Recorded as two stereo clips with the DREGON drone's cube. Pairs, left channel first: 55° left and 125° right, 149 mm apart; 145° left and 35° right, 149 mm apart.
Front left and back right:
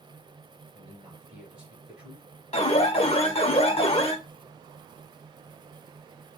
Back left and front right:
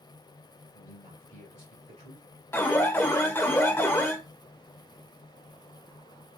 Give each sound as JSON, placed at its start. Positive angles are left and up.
{"t": 0.7, "sound": "a man speaking", "azimuth_deg": -45, "distance_m": 2.0}
{"t": 2.5, "sound": "an alarm", "azimuth_deg": 75, "distance_m": 0.6}